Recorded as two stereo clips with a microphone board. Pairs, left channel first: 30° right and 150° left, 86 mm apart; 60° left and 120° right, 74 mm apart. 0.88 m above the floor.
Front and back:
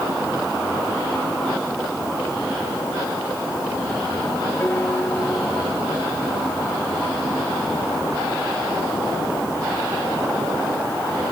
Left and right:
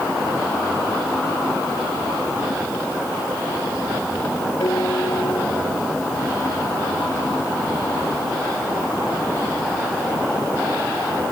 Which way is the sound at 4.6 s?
35° left.